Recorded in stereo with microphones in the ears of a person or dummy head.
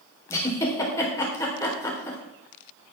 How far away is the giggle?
About 3.5 m.